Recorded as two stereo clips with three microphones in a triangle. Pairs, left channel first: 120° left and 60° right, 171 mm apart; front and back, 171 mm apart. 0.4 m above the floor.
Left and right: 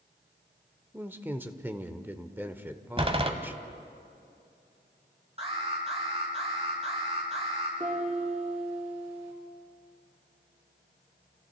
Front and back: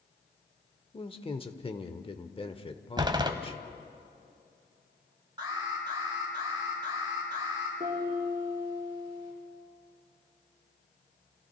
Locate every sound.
0.9 s a man speaking: 10° left, 1.1 m
3.0 s a door slam: 115° right, 1.4 m
5.4 s an alarm: 115° right, 6 m
7.8 s a piano: 115° right, 8 m